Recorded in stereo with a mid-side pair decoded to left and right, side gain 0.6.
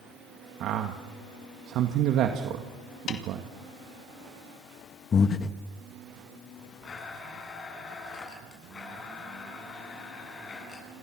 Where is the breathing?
35° left, 1.3 m.